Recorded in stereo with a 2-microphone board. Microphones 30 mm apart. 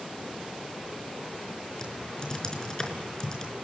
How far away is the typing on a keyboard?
About 4.5 m.